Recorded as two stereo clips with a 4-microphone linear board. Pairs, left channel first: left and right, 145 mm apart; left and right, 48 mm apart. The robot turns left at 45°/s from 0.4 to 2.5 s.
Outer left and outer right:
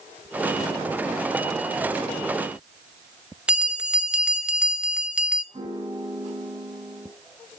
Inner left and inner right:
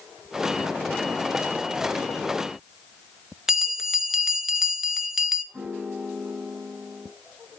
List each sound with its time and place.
3.5 s a bell: 10° right (ahead or behind), 0.9 m
5.5 s a piano: 35° right (ahead or behind), 6 m